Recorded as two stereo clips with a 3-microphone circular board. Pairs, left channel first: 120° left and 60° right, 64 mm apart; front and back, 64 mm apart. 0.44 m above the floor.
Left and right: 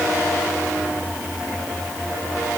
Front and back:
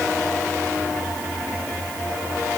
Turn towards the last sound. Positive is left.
No sound to turn to.